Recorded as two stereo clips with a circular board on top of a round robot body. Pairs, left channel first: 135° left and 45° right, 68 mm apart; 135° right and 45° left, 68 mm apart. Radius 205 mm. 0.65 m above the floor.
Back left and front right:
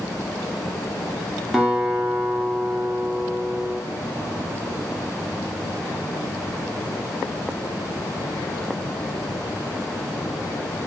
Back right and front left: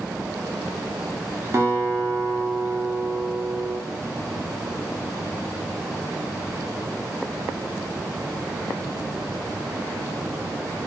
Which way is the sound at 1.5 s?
35° left.